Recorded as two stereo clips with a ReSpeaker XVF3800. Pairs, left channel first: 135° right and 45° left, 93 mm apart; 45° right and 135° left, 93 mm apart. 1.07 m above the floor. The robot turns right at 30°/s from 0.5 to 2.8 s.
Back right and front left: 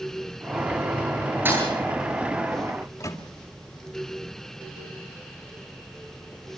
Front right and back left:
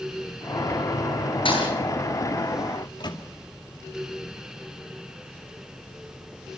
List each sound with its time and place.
1.4 s a thud: 25° right, 9 m; by 1.7 s 15° right, 9 m
2.8 s a microwave: 80° right, 2.5 m